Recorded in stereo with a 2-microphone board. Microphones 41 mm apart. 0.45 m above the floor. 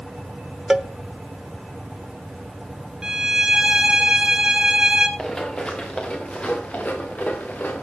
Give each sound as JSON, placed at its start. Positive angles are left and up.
{"t": 0.7, "sound": "a cowbell", "side_deg": -15, "distance_m": 0.6}
{"t": 3.0, "sound": "a violin", "side_deg": -20, "distance_m": 1.4}
{"t": 5.2, "sound": "running footsteps", "side_deg": 20, "distance_m": 3.5}